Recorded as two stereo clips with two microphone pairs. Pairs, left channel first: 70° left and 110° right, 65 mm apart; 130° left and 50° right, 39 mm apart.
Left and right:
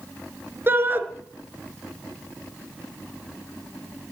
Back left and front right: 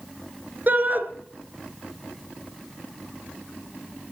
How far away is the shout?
About 2.5 m.